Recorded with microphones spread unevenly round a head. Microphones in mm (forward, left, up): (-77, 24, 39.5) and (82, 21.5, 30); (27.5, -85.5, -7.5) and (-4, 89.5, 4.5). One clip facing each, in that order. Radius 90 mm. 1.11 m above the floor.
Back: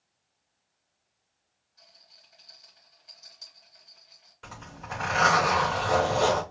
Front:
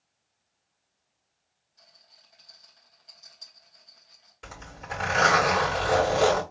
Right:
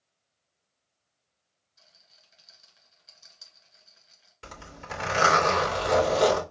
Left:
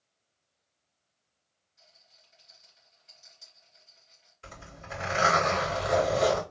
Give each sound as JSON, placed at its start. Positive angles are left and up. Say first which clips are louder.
{"t": 1.8, "sound": "a rattle", "louder": "back 1 dB, left 1 dB", "azimuth_deg": -100, "distance_m": 3.0}
{"t": 4.4, "sound": "a zipper", "louder": "front 1 dB, right 3 dB", "azimuth_deg": -70, "distance_m": 3.0}